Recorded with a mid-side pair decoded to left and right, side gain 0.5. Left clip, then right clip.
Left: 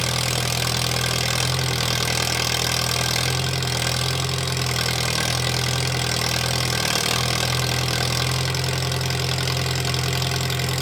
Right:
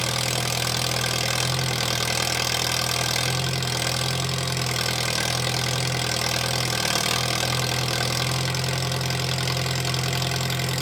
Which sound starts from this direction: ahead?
An engine running, at 0.0 s.